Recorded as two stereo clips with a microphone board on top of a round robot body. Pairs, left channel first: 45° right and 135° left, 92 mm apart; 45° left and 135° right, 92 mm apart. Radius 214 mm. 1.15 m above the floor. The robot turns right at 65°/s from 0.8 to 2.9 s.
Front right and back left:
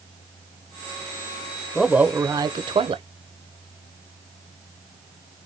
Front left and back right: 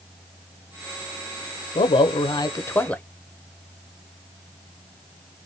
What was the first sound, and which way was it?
A man speaking, 45° left.